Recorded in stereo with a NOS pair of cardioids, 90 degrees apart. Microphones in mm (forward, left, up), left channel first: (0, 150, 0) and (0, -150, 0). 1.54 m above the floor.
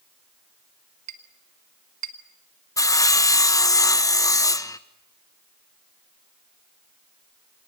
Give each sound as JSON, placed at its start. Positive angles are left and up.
{"t": 1.1, "sound": "a clink", "azimuth_deg": -65, "distance_m": 1.9}
{"t": 2.8, "sound": "sawing", "azimuth_deg": 10, "distance_m": 1.1}